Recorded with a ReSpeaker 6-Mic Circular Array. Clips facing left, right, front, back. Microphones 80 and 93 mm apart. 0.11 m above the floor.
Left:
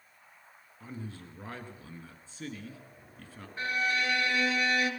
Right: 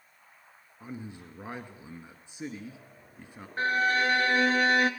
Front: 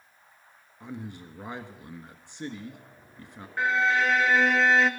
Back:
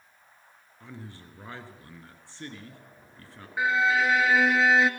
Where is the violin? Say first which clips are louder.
Right 5 dB, even; 100° right, 1.1 m.